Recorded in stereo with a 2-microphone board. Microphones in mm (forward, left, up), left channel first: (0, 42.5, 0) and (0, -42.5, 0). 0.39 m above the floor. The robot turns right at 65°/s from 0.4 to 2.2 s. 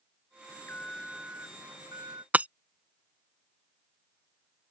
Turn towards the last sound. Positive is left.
turn(degrees=-20)  # may be behind; listen again after turning